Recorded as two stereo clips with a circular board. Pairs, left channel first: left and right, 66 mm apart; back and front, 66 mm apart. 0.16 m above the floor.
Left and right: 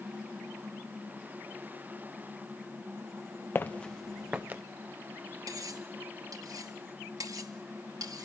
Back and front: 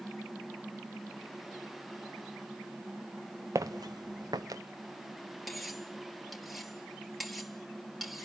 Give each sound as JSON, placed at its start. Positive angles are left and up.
{"t": 3.5, "sound": "footsteps", "azimuth_deg": 35, "distance_m": 0.9}
{"t": 5.5, "sound": "cutlery clinking", "azimuth_deg": -90, "distance_m": 1.9}